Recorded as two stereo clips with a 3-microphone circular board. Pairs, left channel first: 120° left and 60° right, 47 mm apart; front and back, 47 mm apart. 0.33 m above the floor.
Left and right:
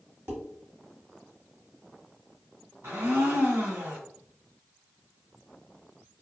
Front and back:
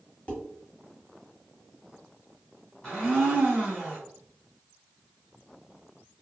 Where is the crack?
No crack in this recording.